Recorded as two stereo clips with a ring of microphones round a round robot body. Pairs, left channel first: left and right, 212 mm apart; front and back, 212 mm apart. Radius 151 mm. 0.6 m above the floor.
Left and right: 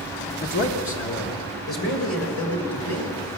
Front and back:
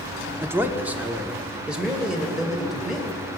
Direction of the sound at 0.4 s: 105° left.